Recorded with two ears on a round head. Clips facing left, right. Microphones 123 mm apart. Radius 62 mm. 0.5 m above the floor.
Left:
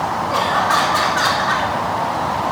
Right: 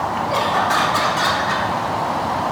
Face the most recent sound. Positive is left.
turn(degrees=-15)  # may be behind; listen again after turning